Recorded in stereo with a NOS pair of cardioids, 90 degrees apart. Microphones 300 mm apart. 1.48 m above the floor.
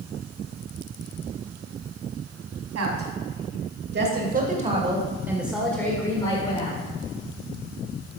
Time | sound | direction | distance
2.8 | a woman speaking | 55° right | 3 m